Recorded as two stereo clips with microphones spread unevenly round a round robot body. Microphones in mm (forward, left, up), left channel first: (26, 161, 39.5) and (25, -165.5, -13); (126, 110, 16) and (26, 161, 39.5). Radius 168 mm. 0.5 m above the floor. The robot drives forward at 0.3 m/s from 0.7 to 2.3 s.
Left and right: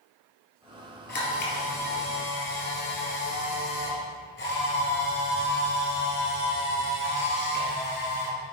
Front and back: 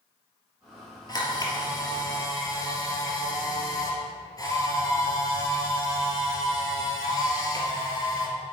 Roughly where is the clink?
No clink in this recording.